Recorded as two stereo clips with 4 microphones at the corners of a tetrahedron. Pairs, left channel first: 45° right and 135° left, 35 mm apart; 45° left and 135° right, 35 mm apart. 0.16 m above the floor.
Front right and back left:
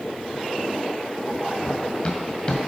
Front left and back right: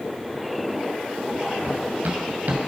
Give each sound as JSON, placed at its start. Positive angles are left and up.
{"t": 1.6, "sound": "running footsteps", "azimuth_deg": -115, "distance_m": 1.5}